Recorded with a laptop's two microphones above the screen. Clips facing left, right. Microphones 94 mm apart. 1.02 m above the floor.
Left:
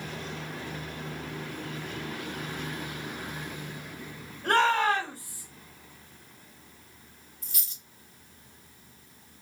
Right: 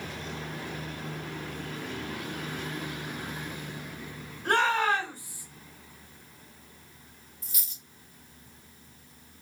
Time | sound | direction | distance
4.4 | a shout | 45° left (ahead or behind) | 2.5 m
7.4 | a dropped coin | 60° left (ahead or behind) | 1.6 m